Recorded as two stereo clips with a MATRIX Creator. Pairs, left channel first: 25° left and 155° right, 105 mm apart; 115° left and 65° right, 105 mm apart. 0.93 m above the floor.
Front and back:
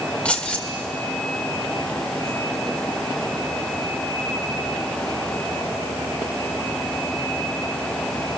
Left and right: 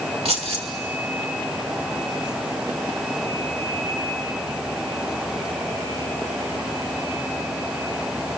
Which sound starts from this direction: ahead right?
Keys jangling, at 0.2 s.